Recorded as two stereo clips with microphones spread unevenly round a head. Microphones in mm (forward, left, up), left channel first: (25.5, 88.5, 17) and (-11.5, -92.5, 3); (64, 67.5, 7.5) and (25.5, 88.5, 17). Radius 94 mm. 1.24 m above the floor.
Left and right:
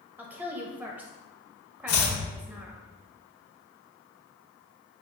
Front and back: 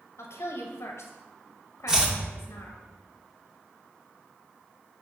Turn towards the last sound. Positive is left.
turn(degrees=80)